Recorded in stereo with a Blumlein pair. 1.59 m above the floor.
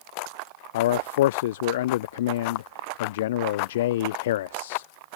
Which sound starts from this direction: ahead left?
A man speaking, at 0.7 s.